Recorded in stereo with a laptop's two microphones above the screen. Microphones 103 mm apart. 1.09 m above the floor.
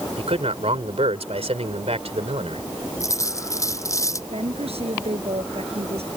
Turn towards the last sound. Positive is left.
turn(degrees=-75)  # may be behind; listen again after turning